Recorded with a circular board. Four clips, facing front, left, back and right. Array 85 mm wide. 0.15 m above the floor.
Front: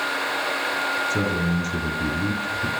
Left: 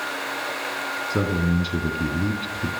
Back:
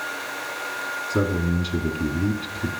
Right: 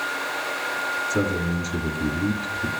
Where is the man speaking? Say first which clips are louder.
Left 3 dB, even; 120° left, 1.4 m.